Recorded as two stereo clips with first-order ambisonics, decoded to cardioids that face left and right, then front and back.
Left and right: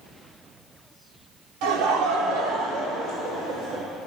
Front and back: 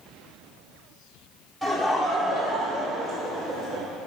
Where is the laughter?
90° right, 1.9 m; by 3.8 s 135° right, 3 m.